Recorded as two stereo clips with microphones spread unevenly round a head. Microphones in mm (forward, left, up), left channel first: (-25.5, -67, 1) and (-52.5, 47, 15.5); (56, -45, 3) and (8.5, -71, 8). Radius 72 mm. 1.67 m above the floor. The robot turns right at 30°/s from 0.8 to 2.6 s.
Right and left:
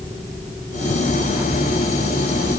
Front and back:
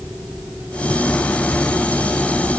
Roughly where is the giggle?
No giggle in this recording.